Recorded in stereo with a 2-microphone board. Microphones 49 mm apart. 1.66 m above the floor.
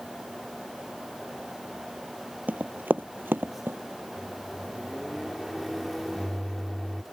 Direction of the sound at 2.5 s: 35° right (ahead or behind).